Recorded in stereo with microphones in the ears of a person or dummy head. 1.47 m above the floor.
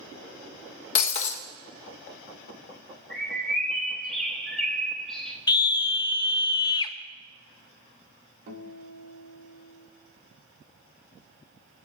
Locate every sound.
0.9 s breaking glass: 40° left (ahead or behind), 0.9 m
3.1 s a bird: centre (ahead or behind), 1.4 m
5.5 s a scream: 25° left (ahead or behind), 0.7 m
8.5 s a guitar: 60° right (ahead or behind), 1.8 m